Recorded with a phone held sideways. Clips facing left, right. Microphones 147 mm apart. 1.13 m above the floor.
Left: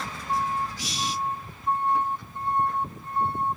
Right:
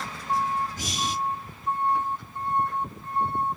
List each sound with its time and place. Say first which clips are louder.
0.8 s breathing: right 1 dB; 45° right (ahead or behind), 0.9 m